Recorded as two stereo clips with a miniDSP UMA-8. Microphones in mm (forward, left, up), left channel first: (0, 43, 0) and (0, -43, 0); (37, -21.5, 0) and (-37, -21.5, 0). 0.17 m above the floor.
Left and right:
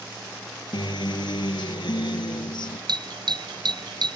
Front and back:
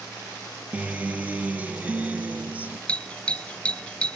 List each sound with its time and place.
0.7 s a guitar: 110° left
2.9 s a doorbell: 75° right